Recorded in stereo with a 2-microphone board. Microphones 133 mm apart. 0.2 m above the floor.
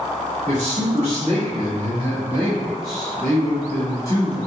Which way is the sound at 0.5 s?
50° right (ahead or behind).